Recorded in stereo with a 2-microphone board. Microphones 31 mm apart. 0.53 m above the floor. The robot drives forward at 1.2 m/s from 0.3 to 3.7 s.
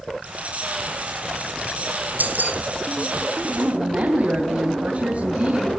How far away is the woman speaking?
About 3 m.